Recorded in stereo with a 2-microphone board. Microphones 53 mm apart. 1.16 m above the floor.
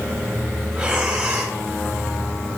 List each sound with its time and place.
0.7 s breathing: 15° right (ahead or behind), 3 m